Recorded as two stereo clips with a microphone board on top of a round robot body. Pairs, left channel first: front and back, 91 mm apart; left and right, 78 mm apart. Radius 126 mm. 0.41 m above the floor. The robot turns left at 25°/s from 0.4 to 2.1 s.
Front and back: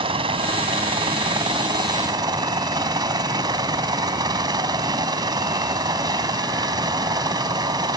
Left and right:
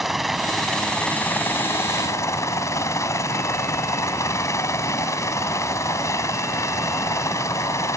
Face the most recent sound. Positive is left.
turn(degrees=140)